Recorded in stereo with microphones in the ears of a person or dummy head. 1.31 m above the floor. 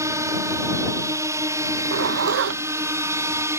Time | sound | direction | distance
0.0 | a drone | 20° right (ahead or behind) | ?
1.7 | a zipper | 55° right (ahead or behind) | ?